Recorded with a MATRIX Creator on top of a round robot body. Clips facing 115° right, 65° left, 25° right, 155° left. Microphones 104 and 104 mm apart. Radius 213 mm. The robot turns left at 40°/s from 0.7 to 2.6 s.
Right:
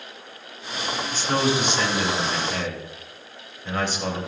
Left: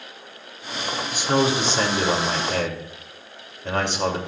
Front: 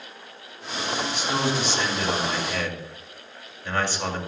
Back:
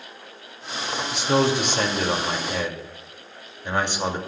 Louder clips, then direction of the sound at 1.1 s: Left 2 dB, back 7 dB; 145° left.